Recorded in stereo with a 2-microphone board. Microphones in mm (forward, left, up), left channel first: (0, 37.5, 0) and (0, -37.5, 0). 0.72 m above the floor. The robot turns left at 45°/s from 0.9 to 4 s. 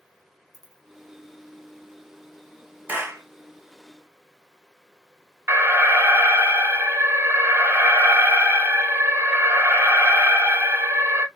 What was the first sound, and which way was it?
A dropped coin, 55° right (ahead or behind).